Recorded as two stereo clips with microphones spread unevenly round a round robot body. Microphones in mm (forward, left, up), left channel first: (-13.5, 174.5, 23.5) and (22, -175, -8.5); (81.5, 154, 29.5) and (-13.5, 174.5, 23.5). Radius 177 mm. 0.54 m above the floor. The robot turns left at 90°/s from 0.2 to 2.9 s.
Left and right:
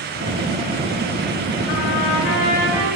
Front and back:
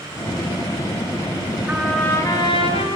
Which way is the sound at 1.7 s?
95° left.